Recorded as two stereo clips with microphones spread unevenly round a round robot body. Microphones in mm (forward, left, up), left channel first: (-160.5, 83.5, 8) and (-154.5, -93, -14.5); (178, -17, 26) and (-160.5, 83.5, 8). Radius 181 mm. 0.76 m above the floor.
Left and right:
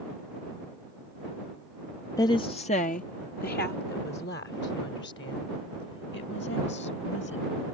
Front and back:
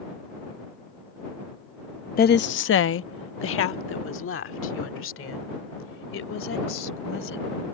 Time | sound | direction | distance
2.2 | a woman speaking | 25° left | ?